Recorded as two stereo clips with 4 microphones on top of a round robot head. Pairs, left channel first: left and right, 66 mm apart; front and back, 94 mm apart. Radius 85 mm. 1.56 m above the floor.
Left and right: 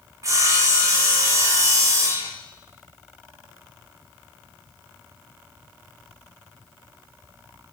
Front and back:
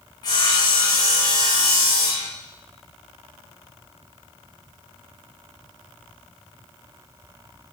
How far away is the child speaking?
No child speaking in this recording.